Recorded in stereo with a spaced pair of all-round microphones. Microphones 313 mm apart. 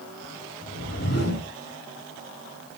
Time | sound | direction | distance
0.6 | a whoosh | 60° left (ahead or behind) | 2.5 m